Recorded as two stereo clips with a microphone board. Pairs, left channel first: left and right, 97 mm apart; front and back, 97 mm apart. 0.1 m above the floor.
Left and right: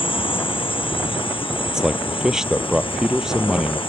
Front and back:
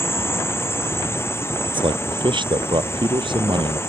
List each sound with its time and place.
0.0 s a drone: 65° left
1.6 s a man speaking: 175° right